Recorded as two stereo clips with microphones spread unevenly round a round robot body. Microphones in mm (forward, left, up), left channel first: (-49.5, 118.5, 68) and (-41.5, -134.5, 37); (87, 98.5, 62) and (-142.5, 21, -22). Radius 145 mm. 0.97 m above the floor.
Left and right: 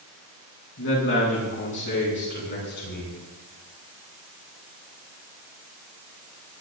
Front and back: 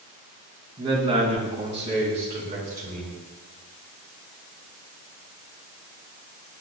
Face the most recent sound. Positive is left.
turn(degrees=140)